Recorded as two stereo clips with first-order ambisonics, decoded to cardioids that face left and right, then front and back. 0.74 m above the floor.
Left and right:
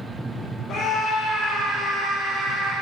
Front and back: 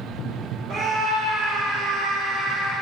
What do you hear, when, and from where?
0.7 s a scream: 125° left, 1.3 m; by 2.7 s 130° right, 1.9 m